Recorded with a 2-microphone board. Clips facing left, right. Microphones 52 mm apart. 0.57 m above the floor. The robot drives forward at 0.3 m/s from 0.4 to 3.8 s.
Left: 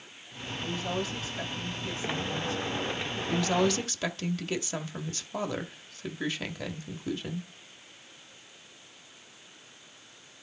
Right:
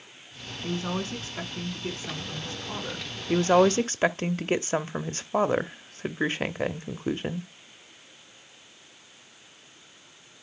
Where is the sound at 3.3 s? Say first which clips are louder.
Right 7 dB; 35° right (ahead or behind), 0.7 m; by 7.5 s 40° right (ahead or behind), 0.7 m.